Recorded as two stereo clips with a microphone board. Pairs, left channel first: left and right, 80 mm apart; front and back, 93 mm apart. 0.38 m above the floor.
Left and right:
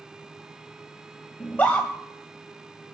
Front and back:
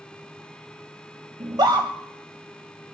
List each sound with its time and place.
1.4 s a scream: 155° left, 1.6 m